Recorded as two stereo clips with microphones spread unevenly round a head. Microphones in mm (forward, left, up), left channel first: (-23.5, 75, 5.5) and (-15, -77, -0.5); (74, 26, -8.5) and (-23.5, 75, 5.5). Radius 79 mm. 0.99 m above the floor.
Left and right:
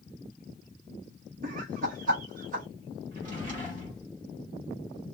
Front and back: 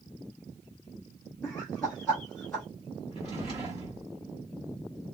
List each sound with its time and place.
1.4 s laughter: 105° right, 0.8 m
3.1 s a drawer: 125° right, 1.6 m